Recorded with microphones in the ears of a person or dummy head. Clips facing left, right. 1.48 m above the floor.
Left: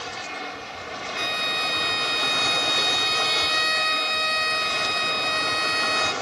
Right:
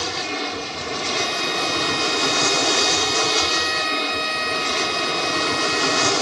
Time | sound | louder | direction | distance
0.0 | an aircraft | right 8 dB | 65° right (ahead or behind) | ?
1.2 | a violin | right 5 dB | centre (ahead or behind) | ?